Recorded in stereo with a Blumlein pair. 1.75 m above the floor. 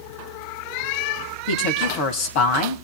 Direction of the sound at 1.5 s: 45° left.